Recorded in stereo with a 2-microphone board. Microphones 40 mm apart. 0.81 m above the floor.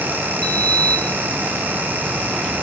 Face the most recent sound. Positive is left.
turn(degrees=25)  # may be behind; listen again after turning